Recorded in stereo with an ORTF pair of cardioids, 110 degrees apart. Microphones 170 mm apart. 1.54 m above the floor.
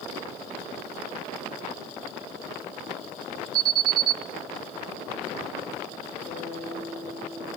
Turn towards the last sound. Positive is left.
turn(degrees=60)